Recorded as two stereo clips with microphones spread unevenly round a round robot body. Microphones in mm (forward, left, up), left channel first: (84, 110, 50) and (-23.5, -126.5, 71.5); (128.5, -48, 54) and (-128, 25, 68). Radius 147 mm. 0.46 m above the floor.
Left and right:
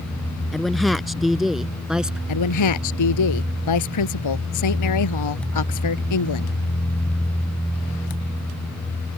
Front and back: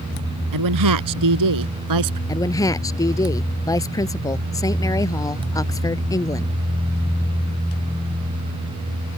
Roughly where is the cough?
No cough in this recording.